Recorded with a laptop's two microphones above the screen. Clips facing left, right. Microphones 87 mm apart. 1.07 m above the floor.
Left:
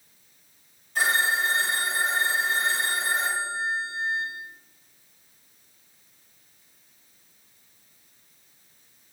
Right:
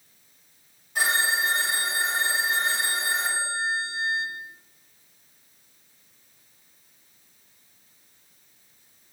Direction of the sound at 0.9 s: 10° right (ahead or behind).